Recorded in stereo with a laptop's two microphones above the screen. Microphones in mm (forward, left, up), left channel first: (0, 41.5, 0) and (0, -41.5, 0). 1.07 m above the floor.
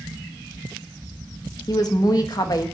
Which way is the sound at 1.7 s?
50° left (ahead or behind).